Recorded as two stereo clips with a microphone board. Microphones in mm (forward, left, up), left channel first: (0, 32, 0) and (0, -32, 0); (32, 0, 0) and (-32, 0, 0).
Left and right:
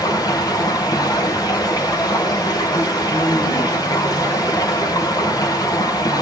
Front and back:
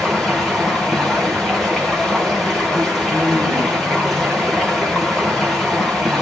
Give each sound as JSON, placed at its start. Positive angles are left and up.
{"t": 0.0, "sound": "running water", "azimuth_deg": 85, "distance_m": 3.5}